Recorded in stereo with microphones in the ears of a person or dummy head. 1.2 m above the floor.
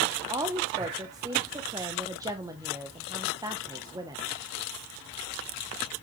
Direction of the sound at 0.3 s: 15° right (ahead or behind).